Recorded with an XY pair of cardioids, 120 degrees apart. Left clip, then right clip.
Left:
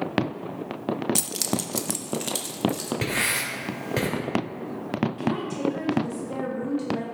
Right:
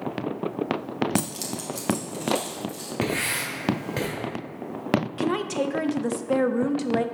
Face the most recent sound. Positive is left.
turn(degrees=-60)